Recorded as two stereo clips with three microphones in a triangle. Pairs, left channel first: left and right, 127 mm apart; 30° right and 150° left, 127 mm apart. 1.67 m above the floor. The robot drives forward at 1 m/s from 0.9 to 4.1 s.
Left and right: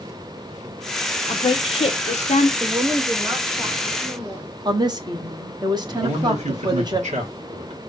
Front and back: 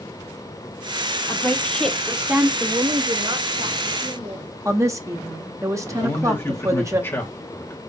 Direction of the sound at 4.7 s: 145° right.